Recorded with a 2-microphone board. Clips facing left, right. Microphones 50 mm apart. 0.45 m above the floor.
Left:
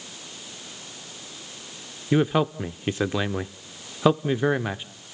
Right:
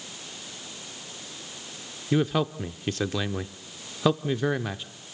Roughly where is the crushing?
I don't hear crushing.